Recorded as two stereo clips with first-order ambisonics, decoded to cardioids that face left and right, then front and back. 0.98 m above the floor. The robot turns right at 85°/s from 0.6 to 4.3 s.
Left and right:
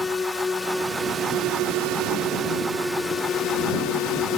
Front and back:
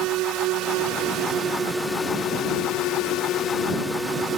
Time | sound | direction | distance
0.0 | a drone | 165° left | ?